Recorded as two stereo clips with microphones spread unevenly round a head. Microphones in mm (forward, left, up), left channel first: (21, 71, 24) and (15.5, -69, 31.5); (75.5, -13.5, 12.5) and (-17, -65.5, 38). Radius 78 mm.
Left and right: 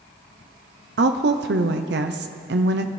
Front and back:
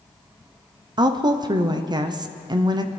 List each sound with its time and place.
1.0 s a woman speaking: 95° right, 0.6 m